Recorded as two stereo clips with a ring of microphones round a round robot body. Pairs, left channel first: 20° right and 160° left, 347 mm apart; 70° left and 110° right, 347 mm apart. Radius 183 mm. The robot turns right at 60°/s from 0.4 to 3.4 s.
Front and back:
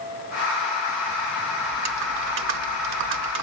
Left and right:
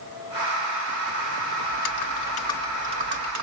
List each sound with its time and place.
1.7 s typing on a keyboard: 100° left, 0.7 m; by 3.4 s 160° right, 0.7 m